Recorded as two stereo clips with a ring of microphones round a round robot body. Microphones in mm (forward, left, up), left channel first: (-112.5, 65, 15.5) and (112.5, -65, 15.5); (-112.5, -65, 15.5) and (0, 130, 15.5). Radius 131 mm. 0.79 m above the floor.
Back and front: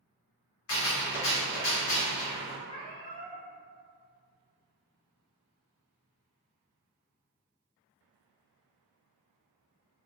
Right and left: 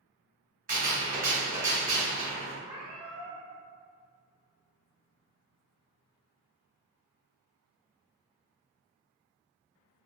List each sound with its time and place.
0.7 s a gunshot: 115° left, 1.2 m
2.7 s a cat meowing: 130° left, 1.0 m